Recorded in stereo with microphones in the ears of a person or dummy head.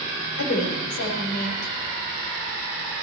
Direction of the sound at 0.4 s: 55° left (ahead or behind).